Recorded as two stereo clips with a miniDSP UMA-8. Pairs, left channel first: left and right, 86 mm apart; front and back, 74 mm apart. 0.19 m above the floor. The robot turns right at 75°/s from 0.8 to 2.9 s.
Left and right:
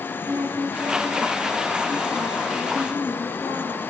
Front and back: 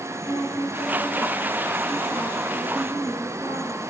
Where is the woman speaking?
40° right, 4.5 m; by 3.9 s 115° left, 4.5 m.